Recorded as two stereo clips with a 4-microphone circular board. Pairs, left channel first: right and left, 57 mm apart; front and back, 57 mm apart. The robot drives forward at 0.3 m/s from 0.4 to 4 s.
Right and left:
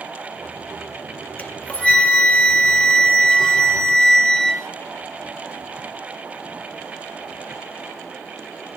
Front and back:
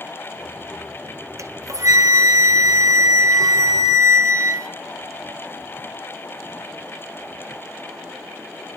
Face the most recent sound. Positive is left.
turn(degrees=-165)